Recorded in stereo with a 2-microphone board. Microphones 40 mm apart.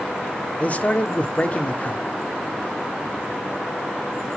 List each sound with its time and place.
0.6 s a man speaking: 35° left (ahead or behind), 0.8 m